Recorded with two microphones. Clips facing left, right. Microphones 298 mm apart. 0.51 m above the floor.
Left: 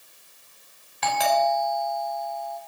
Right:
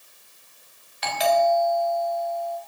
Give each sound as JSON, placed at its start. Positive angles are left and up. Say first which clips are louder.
{"t": 1.0, "sound": "a doorbell", "louder": "right 3 dB", "side_deg": 65, "distance_m": 5.0}